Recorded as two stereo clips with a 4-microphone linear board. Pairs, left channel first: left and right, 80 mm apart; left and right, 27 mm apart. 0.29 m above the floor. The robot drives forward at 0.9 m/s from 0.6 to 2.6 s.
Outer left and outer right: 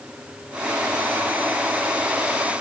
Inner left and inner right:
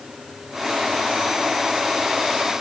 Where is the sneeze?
No sneeze in this recording.